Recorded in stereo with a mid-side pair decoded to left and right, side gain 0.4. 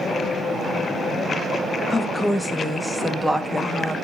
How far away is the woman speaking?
About 1.3 m.